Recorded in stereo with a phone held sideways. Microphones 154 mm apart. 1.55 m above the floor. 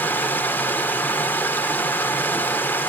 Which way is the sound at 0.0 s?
15° left (ahead or behind).